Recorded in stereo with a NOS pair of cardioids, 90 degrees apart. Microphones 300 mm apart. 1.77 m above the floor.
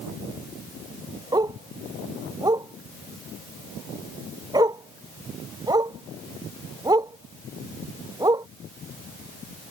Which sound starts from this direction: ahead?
A dog barking, at 1.3 s.